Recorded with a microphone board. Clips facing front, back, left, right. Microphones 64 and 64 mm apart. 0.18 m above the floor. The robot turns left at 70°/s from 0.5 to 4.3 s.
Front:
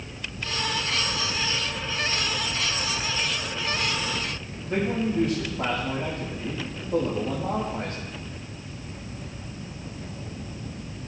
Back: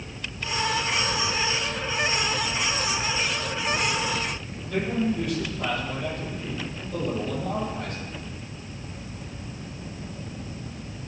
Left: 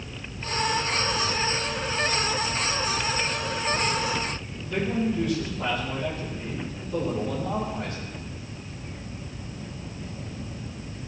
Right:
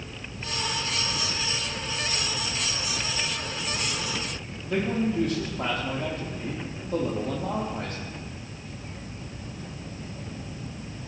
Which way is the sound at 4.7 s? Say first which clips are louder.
Even, even; 50° right.